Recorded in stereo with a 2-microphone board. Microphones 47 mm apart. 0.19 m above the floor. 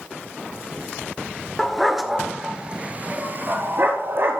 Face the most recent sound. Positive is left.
turn(degrees=-55)  # may be behind; listen again after turning